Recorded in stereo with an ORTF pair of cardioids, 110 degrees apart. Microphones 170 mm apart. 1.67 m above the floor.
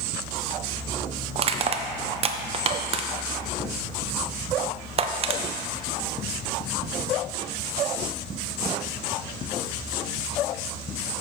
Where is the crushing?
35° right, 0.6 m.